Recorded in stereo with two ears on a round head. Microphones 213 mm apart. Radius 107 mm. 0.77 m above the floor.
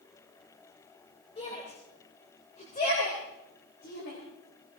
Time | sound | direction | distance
1.4 | a shout | 25° left (ahead or behind) | 3.5 m